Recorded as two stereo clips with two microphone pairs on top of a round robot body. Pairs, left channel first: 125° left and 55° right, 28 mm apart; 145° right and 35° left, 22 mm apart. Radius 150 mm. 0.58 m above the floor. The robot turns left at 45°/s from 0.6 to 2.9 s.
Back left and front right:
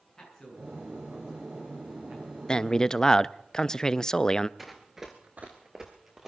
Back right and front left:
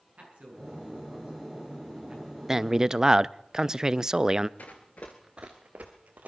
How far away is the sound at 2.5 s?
About 0.6 m.